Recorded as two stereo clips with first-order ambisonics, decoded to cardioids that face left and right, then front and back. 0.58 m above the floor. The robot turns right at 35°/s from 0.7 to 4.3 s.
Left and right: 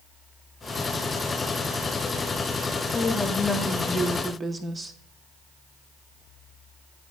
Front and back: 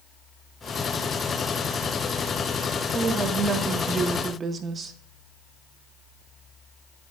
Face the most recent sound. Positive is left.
turn(degrees=-160)